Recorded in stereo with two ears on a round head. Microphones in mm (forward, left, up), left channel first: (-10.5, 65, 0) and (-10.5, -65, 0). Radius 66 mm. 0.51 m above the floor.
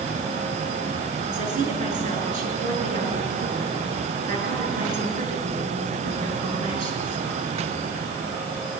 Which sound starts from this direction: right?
A woman speaking, at 1.3 s.